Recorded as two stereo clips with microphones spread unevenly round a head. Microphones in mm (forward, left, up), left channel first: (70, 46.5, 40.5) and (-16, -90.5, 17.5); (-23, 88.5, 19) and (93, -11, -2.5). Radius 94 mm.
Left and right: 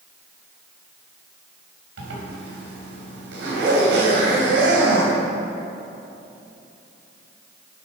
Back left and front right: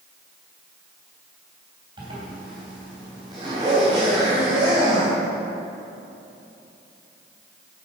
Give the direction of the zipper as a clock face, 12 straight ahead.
4 o'clock.